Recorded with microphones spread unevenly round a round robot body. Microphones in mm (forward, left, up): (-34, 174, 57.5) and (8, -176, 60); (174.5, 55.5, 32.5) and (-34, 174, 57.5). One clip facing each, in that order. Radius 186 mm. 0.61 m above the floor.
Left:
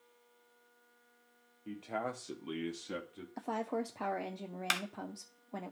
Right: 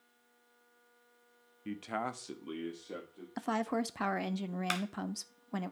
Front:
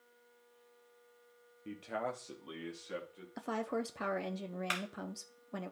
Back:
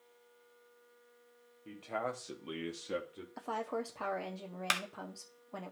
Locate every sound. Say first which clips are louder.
1.6 s a man speaking: right 1 dB, even; 80° right, 1.1 m; by 3.3 s 130° left, 1.4 m
3.4 s a woman speaking: right 3 dB, front 2 dB; 75° right, 0.7 m
4.7 s a clap: right 5 dB, front 1 dB; 165° left, 0.9 m